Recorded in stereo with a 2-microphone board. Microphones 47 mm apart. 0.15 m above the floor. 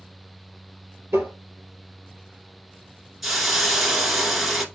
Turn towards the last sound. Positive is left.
turn(degrees=-5)  # may be behind; listen again after turning